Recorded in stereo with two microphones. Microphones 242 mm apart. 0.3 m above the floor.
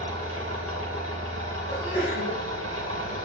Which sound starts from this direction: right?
An engine running, at 0.0 s.